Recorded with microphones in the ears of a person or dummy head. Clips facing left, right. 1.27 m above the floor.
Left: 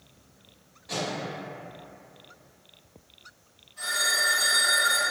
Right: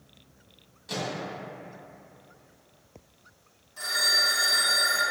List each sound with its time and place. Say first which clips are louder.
0.9 s a microwave: left 1 dB; 35° right (ahead or behind), 0.9 m
3.8 s a phone ringing: even; 65° right (ahead or behind), 0.8 m